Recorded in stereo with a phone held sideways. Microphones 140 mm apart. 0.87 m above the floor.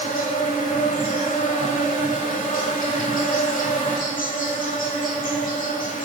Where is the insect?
80° left, 1.6 m.